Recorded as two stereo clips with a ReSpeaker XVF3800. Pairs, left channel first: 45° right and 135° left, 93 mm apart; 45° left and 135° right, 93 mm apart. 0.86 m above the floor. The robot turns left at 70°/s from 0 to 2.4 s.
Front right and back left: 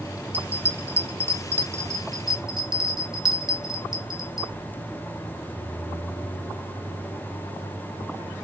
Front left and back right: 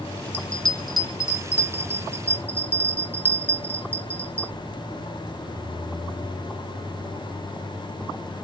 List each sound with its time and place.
0.3 s a bell: 5° right, 0.6 m; by 4.5 s 145° right, 0.6 m